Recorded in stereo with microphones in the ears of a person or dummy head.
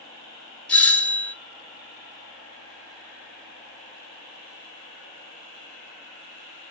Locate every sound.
0.7 s a doorbell: 10° left (ahead or behind), 0.9 m